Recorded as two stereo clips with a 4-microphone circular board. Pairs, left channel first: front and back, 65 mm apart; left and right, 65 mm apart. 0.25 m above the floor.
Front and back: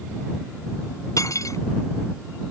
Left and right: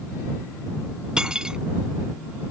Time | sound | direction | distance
1.2 | cutlery clinking | 15° right | ?